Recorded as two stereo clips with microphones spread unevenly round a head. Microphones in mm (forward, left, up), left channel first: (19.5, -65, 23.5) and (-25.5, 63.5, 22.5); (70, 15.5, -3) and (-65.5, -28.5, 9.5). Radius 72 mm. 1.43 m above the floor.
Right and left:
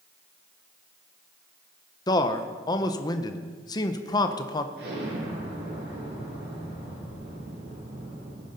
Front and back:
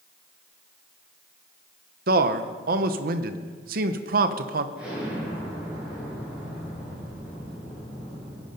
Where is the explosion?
115° left, 8.5 m.